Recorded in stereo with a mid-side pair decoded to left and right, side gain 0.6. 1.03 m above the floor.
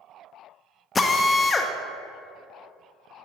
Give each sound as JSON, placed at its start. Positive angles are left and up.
{"t": 0.9, "sound": "a drill", "azimuth_deg": 20, "distance_m": 0.7}